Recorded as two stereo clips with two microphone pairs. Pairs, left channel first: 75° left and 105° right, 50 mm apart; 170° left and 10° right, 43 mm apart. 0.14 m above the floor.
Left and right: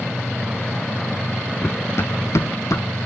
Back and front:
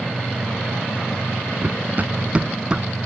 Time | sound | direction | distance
1.6 | running footsteps | 30° left | 0.8 m